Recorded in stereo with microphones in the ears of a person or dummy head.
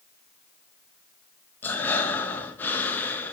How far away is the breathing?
About 1.4 m.